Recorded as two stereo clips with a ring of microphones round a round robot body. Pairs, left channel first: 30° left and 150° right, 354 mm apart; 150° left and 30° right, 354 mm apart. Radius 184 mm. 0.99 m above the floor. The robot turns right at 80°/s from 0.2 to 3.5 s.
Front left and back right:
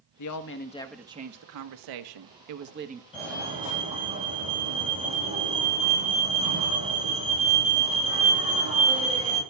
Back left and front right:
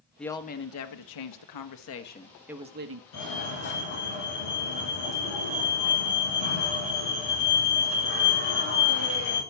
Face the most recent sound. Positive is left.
turn(degrees=135)